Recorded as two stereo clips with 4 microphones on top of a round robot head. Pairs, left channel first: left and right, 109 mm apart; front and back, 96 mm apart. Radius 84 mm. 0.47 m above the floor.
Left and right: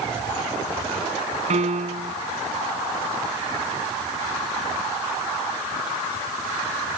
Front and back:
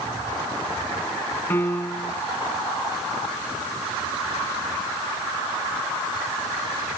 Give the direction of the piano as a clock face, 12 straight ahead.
2 o'clock.